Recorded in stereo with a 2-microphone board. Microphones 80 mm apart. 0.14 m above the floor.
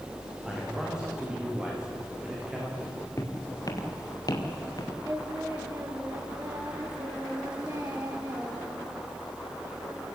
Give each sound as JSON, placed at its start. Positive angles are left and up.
{"t": 0.4, "sound": "a man speaking", "side_deg": -10, "distance_m": 9.0}
{"t": 3.2, "sound": "footsteps", "side_deg": 40, "distance_m": 3.0}
{"t": 5.0, "sound": "singing", "side_deg": -35, "distance_m": 4.5}